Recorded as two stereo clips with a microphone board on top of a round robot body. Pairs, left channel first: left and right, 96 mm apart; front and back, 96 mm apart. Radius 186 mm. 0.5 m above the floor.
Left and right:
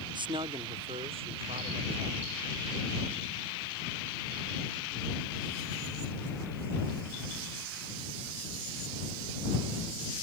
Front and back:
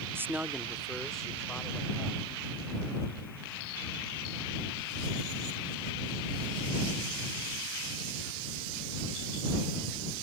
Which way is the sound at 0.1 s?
115° right.